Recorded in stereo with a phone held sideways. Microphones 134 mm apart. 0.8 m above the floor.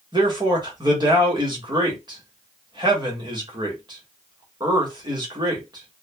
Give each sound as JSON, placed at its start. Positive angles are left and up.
{"t": 0.1, "sound": "a man speaking", "side_deg": -35, "distance_m": 1.3}